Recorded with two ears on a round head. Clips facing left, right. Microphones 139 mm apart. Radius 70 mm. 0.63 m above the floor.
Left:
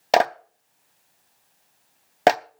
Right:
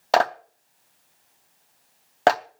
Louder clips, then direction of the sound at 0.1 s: Left 1 dB; 20° left (ahead or behind).